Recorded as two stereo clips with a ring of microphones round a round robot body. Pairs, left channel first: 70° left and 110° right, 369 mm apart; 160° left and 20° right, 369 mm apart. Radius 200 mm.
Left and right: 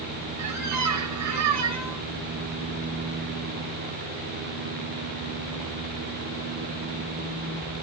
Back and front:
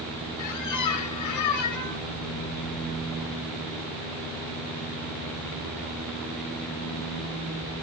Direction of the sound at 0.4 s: 160° right.